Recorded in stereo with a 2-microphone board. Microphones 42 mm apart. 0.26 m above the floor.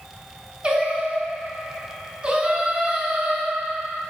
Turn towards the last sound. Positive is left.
turn(degrees=-25)  # may be behind; listen again after turning